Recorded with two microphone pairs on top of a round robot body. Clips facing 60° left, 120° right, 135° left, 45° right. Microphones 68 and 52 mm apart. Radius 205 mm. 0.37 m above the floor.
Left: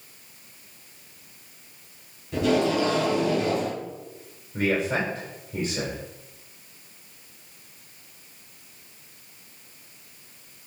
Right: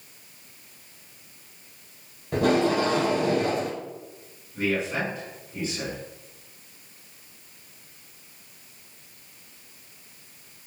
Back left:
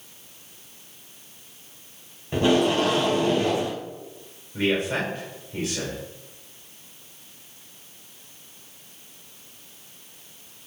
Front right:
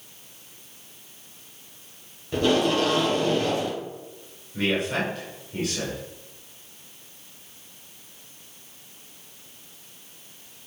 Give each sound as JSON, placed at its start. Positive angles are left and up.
{"t": 2.3, "sound": "tape being pulled", "azimuth_deg": -155, "distance_m": 3.0}
{"t": 4.5, "sound": "a man speaking", "azimuth_deg": 50, "distance_m": 3.5}